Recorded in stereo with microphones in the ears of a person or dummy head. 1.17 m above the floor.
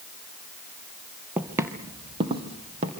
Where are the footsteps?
10° right (ahead or behind), 1.7 m; by 2.9 s 40° right (ahead or behind), 3.5 m.